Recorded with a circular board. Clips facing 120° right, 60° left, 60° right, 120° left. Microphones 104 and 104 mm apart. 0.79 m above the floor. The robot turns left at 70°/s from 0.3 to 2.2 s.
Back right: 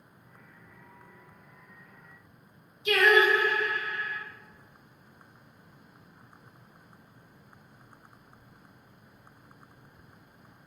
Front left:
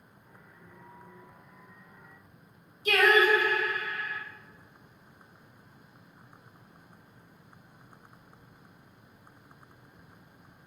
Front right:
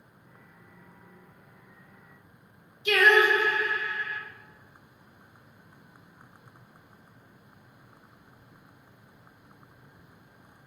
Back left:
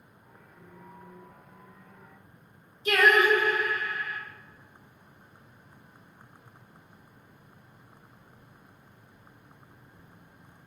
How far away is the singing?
About 0.7 m.